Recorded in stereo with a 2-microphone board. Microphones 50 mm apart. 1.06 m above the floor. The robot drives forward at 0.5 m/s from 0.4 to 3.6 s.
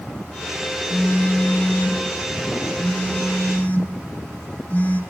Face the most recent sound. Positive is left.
turn(degrees=35)  # may be behind; listen again after turning